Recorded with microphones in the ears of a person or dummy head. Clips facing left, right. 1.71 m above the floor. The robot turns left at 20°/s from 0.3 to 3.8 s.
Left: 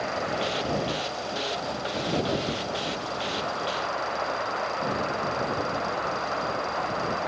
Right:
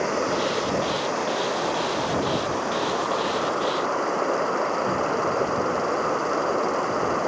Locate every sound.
0.0 s running water: 55° right; by 7.3 s 125° right